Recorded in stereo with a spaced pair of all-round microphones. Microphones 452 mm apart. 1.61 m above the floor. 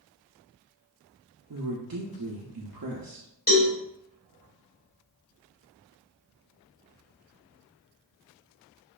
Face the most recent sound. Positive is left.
turn(degrees=20)  # may be behind; listen again after turning